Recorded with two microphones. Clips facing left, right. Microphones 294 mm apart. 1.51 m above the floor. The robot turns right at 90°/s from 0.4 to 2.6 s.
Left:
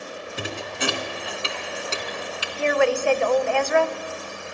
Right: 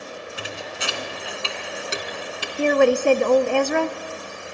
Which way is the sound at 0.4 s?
50° left (ahead or behind).